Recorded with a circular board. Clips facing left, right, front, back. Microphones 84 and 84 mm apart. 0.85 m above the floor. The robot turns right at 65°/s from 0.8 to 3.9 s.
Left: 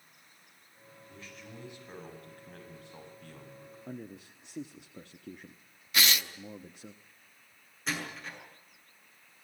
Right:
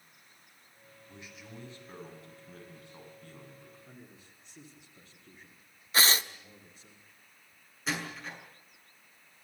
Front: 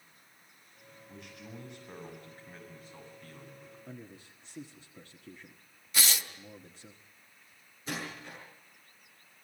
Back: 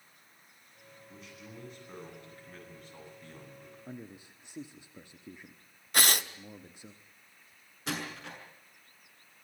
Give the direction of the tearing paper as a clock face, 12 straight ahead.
5 o'clock.